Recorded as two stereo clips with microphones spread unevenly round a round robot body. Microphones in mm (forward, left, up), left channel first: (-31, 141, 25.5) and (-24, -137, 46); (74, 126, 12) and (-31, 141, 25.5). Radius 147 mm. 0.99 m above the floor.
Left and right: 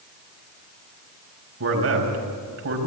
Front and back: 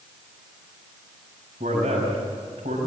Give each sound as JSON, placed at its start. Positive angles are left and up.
{"t": 1.6, "sound": "a man speaking", "azimuth_deg": -130, "distance_m": 5.5}